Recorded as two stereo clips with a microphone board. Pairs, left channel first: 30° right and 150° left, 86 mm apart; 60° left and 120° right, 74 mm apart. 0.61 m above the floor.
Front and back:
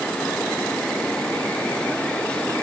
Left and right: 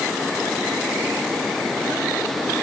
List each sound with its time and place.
Only background noise.